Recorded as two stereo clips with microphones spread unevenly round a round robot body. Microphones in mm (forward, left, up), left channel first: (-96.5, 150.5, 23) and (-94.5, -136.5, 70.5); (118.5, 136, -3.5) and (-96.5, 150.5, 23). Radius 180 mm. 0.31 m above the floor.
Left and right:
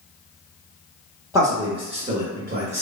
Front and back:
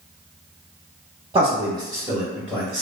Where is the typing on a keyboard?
No typing on a keyboard in this recording.